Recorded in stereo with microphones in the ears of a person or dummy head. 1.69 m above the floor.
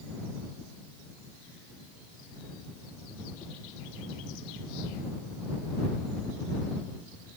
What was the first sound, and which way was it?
Only background noise.